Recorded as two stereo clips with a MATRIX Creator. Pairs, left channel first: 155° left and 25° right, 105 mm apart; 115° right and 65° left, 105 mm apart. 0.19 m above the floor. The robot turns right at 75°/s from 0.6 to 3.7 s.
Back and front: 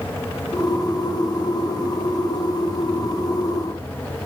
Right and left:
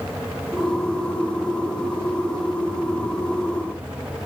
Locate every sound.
Only background noise.